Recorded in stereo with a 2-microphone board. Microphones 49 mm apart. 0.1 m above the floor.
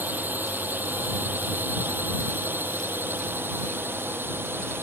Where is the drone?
40° right (ahead or behind); by 4.8 s 50° right (ahead or behind).